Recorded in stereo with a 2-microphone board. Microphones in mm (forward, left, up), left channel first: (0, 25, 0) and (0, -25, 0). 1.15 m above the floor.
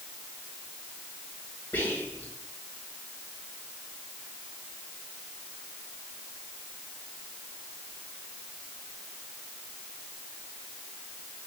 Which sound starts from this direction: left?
Whispering, at 1.7 s.